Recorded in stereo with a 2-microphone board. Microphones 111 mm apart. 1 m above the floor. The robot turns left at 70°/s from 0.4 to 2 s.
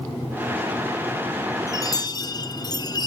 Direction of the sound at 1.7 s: 25° left (ahead or behind).